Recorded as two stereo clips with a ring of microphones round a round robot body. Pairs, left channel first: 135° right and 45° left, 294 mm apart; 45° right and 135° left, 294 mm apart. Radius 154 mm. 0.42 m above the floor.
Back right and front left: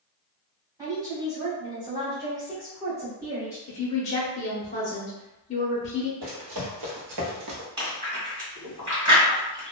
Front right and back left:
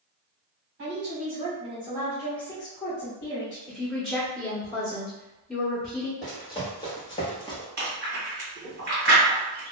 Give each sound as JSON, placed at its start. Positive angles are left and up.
{"t": 0.8, "sound": "a woman speaking", "azimuth_deg": 120, "distance_m": 1.4}
{"t": 3.7, "sound": "a woman speaking", "azimuth_deg": -135, "distance_m": 0.9}
{"t": 6.2, "sound": "running footsteps", "azimuth_deg": 30, "distance_m": 1.1}
{"t": 7.8, "sound": "chewing", "azimuth_deg": 105, "distance_m": 1.6}